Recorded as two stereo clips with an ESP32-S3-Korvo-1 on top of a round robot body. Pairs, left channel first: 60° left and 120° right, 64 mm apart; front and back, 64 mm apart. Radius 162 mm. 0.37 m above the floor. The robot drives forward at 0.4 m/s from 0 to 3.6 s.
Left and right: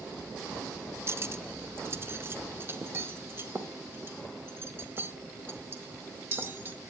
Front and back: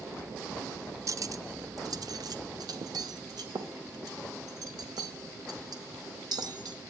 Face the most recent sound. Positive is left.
turn(degrees=-175)